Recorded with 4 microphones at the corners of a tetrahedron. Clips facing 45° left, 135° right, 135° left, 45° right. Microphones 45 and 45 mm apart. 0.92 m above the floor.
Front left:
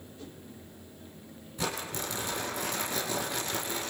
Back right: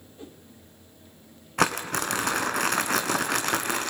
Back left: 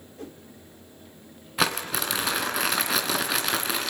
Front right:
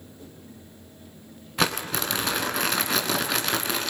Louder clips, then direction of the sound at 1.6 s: Back right 10 dB, even; 140° right.